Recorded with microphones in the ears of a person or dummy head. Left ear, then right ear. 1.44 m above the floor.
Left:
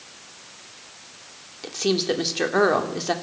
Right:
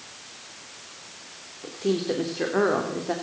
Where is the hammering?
No hammering in this recording.